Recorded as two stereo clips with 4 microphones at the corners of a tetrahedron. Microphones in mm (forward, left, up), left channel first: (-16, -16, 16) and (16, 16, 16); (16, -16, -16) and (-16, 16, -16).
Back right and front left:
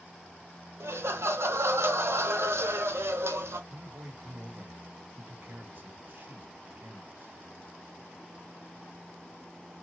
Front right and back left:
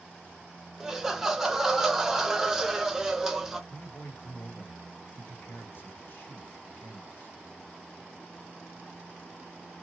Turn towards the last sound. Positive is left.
turn(degrees=0)